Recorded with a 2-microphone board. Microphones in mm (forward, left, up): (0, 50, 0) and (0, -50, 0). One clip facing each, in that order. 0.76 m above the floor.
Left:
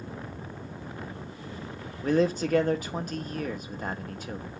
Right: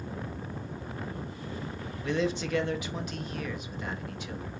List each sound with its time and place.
2.0 s a man speaking: 45° left (ahead or behind), 0.5 m